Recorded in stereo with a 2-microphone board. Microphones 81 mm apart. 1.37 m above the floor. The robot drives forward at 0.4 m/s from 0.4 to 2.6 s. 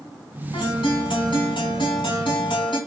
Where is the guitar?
70° left (ahead or behind), 4.5 m; by 2.8 s 80° left, 4 m.